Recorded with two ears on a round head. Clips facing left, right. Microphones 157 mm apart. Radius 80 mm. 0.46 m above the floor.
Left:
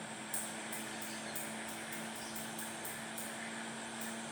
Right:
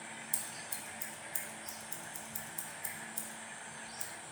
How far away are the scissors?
About 0.5 m.